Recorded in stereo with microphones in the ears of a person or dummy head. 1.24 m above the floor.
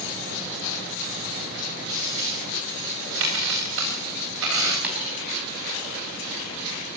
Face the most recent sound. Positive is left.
turn(degrees=-5)  # may be behind; listen again after turning